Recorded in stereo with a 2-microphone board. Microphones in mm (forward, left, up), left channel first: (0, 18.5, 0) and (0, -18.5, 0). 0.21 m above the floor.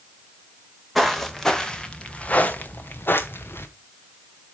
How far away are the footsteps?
About 1.6 m.